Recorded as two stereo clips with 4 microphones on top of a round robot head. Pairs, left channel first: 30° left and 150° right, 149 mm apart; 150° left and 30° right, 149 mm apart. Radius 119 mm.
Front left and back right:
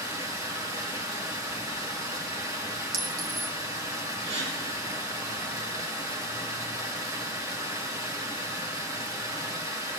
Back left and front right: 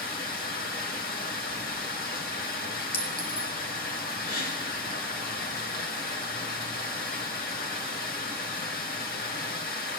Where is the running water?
145° left, 3 m.